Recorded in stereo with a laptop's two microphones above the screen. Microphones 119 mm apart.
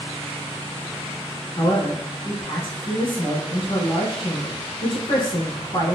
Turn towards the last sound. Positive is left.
turn(degrees=50)  # may be behind; listen again after turning